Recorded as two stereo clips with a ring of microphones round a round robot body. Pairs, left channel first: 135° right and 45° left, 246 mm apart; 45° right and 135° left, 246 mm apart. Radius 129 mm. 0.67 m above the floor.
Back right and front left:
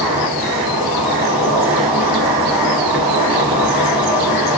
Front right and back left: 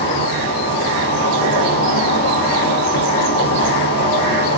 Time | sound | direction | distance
0.0 | an insect | 35° right | 1.5 m